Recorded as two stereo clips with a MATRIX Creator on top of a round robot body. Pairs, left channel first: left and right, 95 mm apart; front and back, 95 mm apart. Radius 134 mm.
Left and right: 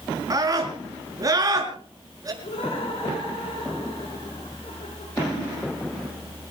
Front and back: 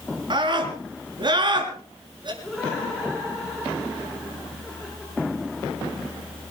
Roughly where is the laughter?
Left.